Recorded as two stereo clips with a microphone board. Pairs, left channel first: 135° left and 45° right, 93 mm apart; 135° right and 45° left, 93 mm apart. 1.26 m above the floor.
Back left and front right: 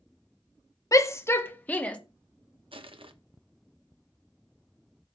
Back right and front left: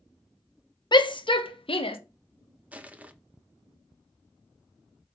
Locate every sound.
0.9 s a shout: 175° right, 1.1 m; by 2.0 s 150° right, 1.4 m
2.7 s crushing: 30° right, 0.9 m